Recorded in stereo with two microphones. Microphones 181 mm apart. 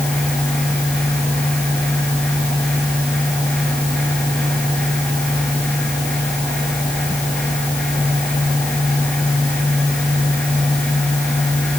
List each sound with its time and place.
Only background noise.